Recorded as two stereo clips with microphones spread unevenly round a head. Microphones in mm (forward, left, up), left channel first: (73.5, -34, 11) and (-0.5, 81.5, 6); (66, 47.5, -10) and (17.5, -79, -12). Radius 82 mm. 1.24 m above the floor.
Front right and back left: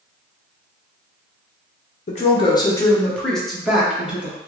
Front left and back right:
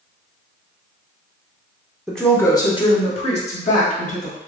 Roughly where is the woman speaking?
Ahead.